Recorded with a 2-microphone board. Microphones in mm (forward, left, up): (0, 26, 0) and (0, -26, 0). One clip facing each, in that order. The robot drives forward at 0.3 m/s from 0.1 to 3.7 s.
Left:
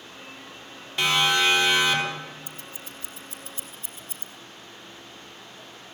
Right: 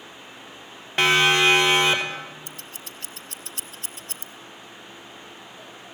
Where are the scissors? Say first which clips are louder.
Even; 60° right (ahead or behind), 1.1 m; by 4.3 s 70° right (ahead or behind), 1.0 m.